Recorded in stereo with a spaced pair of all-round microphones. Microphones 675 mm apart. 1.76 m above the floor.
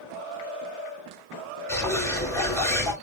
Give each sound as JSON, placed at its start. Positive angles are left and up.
{"t": 1.7, "sound": "a bird", "side_deg": 5, "distance_m": 3.0}